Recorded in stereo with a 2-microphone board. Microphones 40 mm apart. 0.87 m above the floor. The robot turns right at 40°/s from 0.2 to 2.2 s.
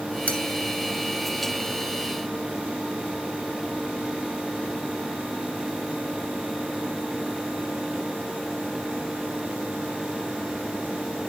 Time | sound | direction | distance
0.3 | cutlery clinking | 35° left (ahead or behind) | 2.5 m